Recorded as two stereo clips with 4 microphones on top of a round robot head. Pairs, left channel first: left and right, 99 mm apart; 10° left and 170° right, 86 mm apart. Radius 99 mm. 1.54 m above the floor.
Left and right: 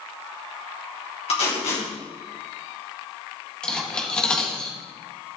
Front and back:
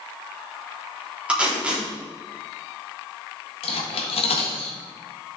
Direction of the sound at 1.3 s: 110° left.